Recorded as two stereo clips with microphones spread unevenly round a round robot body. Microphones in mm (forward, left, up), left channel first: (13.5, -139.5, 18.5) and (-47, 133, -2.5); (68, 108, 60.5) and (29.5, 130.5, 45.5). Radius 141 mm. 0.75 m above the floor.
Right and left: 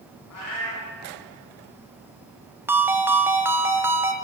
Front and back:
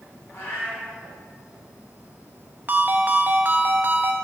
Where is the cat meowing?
105° right, 3.5 m.